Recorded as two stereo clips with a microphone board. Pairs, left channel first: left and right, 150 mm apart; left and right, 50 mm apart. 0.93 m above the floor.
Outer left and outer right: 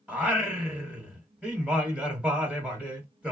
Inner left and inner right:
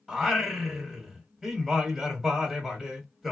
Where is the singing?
10° right (ahead or behind), 1.1 m.